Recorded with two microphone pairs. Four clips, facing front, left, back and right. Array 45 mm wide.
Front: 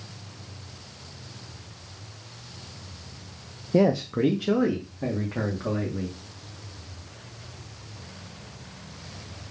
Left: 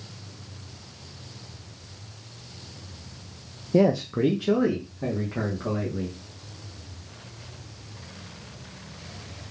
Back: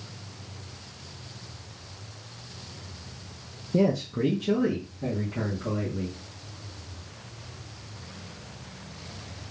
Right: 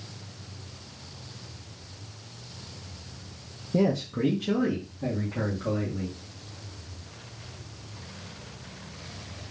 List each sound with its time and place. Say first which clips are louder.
3.7 s a man speaking: left 4 dB, front 3 dB; 30° left, 0.5 m